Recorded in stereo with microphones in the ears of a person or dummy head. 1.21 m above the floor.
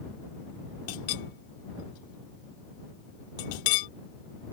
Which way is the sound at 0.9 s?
50° left (ahead or behind).